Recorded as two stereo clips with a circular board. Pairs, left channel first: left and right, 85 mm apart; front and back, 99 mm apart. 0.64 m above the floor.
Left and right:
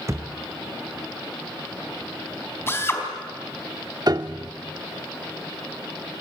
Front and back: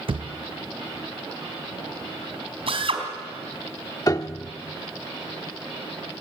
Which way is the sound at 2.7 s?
150° left.